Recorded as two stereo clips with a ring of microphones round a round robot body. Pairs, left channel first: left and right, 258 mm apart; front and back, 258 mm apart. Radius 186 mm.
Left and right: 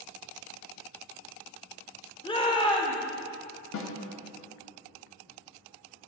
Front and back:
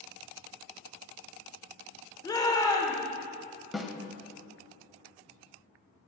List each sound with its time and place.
2.2 s a shout: 55° left, 1.2 m
3.7 s a snare drum: 90° left, 0.9 m